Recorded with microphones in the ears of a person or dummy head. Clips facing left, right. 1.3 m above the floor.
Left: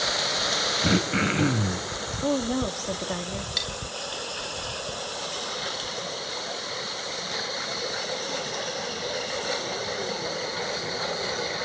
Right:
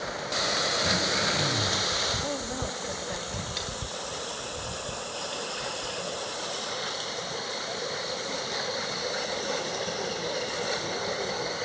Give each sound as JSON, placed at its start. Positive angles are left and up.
{"t": 0.8, "sound": "throat clearing", "side_deg": 60, "distance_m": 2.5}
{"t": 2.2, "sound": "a woman speaking", "side_deg": 55, "distance_m": 3.0}
{"t": 3.6, "sound": "cutlery clinking", "side_deg": 15, "distance_m": 3.0}